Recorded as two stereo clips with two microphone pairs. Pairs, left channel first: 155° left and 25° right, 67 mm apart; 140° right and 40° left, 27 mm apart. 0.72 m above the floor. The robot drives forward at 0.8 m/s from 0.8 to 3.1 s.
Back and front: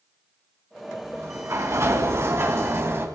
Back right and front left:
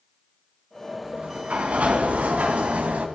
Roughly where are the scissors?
No scissors in this recording.